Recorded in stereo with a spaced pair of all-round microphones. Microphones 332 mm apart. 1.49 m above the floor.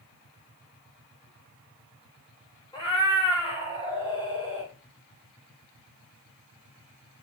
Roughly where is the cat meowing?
Centre.